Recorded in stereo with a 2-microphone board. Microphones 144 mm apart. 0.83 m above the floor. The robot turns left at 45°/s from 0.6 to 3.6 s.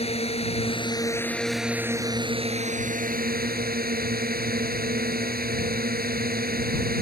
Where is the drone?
40° left; by 7.0 s 95° right.